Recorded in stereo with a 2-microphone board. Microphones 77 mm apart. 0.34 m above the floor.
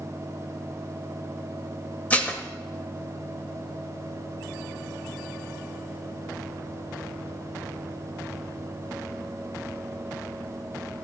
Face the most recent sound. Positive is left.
turn(degrees=20)  # may be behind; listen again after turning